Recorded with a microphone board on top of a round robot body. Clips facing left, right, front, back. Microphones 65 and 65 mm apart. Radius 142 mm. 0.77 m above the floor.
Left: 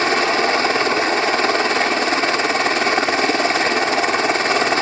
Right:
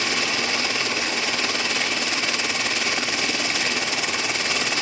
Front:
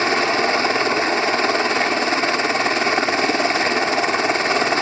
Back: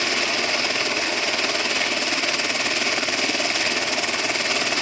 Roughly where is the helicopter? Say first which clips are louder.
Left 9 dB, front 6 dB; ahead left.